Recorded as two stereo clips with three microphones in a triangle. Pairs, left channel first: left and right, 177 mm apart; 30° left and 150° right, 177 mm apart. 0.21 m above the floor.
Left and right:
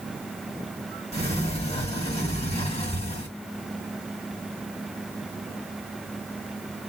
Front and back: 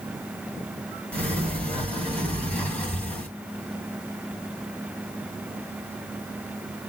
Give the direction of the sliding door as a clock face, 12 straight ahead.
8 o'clock.